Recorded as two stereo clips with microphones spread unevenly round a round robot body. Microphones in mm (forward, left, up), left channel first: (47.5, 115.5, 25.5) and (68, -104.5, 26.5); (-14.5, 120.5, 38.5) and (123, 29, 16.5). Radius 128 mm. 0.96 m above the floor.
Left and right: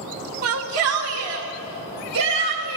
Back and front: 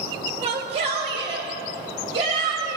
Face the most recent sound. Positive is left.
turn(degrees=-100)